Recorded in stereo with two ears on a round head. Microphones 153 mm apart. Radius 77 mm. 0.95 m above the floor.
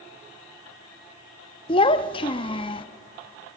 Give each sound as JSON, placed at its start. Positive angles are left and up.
{"t": 1.7, "sound": "a child speaking", "side_deg": 30, "distance_m": 0.5}